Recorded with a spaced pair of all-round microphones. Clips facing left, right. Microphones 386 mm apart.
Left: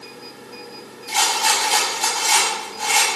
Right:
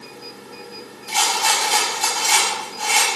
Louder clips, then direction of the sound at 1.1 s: Even; 30° left (ahead or behind).